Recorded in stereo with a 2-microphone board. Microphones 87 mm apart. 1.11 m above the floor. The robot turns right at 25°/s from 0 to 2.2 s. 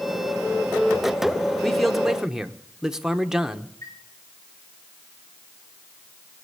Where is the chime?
45° left (ahead or behind), 3.5 m.